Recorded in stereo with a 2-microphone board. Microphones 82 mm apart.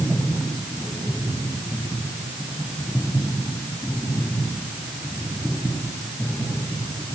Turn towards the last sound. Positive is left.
No sound to turn to.